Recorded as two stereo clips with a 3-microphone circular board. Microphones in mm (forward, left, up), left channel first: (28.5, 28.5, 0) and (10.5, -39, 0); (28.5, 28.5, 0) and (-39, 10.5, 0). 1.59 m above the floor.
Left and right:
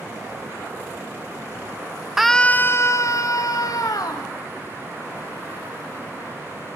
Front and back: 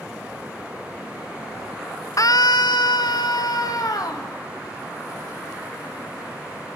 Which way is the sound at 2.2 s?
20° right.